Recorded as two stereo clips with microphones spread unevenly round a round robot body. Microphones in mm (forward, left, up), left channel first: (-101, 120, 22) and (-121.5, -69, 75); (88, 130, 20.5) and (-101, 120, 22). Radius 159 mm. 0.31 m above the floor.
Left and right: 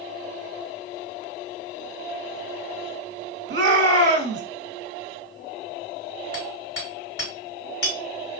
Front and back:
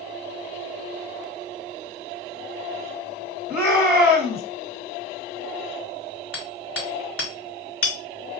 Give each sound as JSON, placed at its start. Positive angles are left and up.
{"t": 3.5, "sound": "a shout", "azimuth_deg": -85, "distance_m": 1.4}
{"t": 6.3, "sound": "hammering", "azimuth_deg": 20, "distance_m": 3.0}